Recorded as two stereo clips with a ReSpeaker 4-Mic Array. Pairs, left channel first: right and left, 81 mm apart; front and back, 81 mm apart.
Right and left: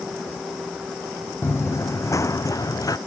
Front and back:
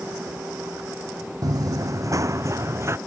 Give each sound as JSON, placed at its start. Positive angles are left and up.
{"t": 1.4, "sound": "running footsteps", "azimuth_deg": -150}